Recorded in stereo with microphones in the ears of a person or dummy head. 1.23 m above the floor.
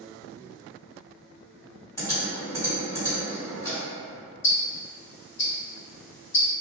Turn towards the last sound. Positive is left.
turn(degrees=45)  # may be behind; listen again after turning